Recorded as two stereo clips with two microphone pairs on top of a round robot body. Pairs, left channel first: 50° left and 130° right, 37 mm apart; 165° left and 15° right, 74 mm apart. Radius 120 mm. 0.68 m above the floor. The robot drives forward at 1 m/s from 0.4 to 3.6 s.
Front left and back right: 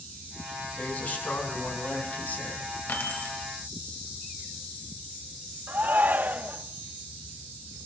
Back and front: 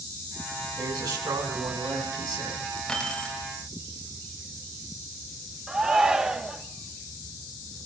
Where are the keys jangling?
80° left, 3 m; by 3.4 s 90° left, 3 m.